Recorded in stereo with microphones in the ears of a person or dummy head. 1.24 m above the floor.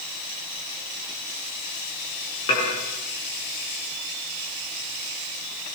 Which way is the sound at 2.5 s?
25° left (ahead or behind).